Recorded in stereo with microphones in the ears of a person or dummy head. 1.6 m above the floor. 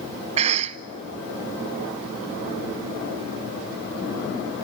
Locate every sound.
0.4 s a cough: 40° right (ahead or behind), 0.7 m